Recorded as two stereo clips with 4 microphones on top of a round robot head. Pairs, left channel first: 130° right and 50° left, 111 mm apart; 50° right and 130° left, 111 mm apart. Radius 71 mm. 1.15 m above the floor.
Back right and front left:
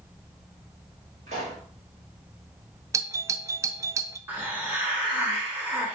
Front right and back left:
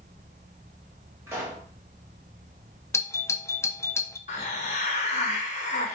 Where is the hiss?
25° right, 1.0 m.